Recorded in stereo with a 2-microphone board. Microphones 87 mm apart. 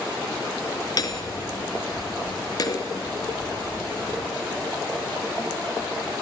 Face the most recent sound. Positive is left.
turn(degrees=45)  # may be behind; listen again after turning